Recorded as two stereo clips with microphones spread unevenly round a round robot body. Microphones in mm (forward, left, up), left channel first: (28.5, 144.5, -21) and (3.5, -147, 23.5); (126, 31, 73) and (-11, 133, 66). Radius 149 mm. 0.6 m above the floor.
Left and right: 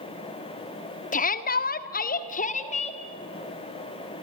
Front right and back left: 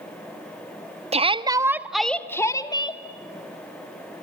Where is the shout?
120° left, 1.4 m; by 3.0 s 25° left, 2 m.